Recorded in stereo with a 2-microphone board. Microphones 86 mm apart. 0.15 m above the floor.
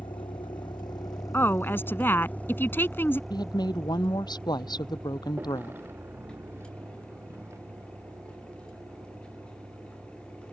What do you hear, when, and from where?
0.0 s a vehicle: 75° left (ahead or behind); by 10.5 s 40° right (ahead or behind)
1.3 s a woman speaking: 25° left (ahead or behind)
3.3 s a woman speaking: 55° left (ahead or behind)